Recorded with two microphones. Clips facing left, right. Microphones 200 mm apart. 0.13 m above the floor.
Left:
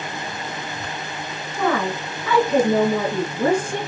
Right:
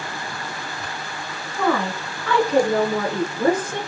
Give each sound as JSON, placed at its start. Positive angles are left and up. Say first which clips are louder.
{"t": 1.6, "sound": "a woman speaking", "louder": "even", "side_deg": 0, "distance_m": 1.9}